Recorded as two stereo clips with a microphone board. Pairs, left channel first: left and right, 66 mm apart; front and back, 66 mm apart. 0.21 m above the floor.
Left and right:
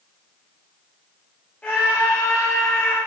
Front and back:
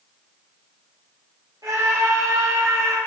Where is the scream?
160° left, 5.5 m; by 3.0 s 170° left, 4.5 m.